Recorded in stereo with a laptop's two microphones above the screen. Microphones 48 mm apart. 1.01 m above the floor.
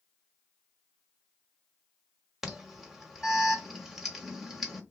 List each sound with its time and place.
2.4 s an alarm: 5° right (ahead or behind), 1.2 m